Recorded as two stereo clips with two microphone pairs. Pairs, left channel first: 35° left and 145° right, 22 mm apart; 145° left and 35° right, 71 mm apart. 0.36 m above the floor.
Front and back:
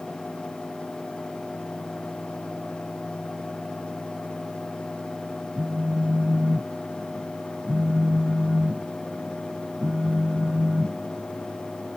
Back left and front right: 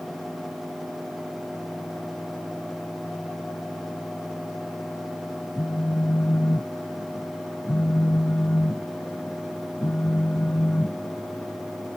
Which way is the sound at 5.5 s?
170° right.